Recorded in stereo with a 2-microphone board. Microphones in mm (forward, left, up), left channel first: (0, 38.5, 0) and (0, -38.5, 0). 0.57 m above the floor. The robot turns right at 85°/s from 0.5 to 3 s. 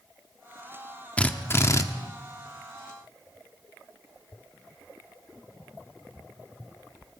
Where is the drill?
25° left, 1.1 m; by 1.8 s 85° left, 1.1 m.